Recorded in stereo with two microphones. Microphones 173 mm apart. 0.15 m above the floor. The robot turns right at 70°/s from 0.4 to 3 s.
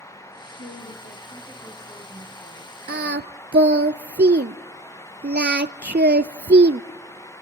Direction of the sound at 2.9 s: 80° right.